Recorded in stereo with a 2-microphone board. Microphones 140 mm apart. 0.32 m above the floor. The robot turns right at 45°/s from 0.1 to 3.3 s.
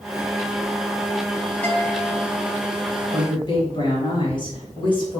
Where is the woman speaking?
30° left (ahead or behind), 1.5 m; by 5.2 s 35° left (ahead or behind), 1.5 m.